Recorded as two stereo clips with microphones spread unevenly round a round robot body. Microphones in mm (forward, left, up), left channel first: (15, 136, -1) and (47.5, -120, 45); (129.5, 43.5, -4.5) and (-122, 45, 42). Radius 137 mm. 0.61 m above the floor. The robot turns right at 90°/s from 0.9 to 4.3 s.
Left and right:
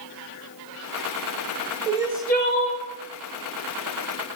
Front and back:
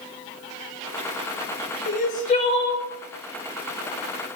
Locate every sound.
1.9 s crying: 10° right, 1.4 m; by 2.8 s 75° left, 1.4 m